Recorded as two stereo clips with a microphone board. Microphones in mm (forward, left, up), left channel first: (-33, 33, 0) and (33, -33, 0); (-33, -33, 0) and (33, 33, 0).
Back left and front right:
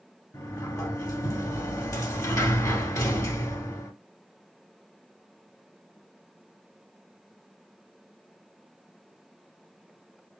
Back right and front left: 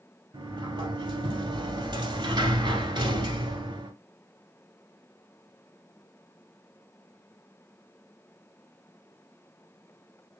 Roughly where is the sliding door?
Left.